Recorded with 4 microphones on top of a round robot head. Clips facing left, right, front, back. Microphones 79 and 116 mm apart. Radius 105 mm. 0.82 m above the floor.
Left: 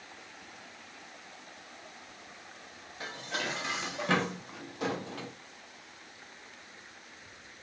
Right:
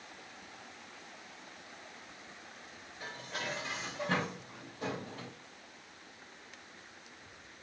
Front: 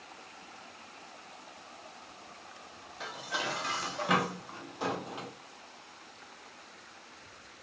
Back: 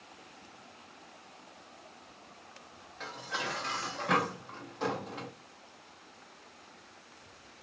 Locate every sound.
3.0 s dishes clattering: 80° left, 0.8 m